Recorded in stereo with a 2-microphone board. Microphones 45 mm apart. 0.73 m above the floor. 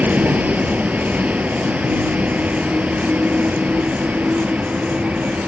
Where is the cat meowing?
No cat meowing in this recording.